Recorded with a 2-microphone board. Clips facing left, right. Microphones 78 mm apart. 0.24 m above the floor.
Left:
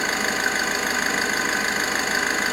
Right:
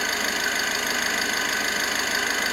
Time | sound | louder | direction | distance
0.0 | an engine running | left 3 dB | 30° left (ahead or behind) | 1.3 m